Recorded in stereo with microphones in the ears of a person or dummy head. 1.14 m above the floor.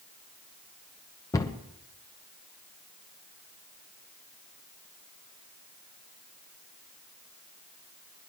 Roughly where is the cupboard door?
Centre.